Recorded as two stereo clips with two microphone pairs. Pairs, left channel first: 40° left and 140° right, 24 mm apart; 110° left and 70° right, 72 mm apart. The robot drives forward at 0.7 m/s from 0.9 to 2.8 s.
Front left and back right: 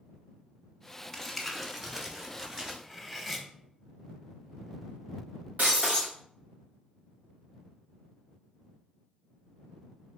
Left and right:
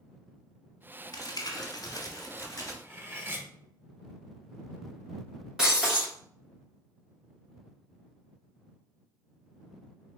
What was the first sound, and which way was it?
Crumpling, 115° left.